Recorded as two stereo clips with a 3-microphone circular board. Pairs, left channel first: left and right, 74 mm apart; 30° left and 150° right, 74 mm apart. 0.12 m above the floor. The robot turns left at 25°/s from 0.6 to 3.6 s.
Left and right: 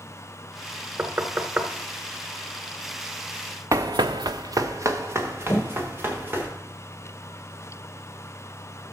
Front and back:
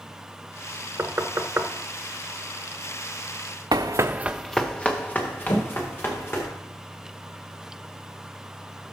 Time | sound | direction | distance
1.0 | knocking | 120° right | 0.9 m
3.7 | running footsteps | 135° right | 0.7 m
5.5 | a thud | 35° left | 2.5 m